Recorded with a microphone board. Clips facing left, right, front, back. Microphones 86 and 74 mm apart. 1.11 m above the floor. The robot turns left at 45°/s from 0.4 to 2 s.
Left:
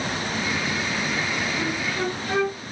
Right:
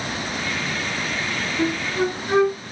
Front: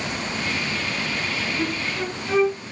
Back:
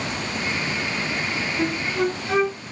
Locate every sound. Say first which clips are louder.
1.6 s a flute: right 4 dB, back 3 dB; 100° right, 0.9 m; by 2.5 s 120° right, 0.9 m